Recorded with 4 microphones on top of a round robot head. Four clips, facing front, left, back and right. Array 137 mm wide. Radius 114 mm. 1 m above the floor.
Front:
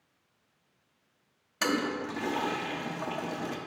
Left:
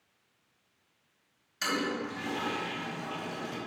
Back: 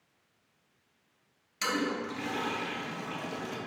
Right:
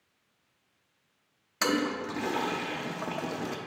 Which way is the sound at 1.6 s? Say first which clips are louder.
Right 4 dB, front 2 dB; 55° right.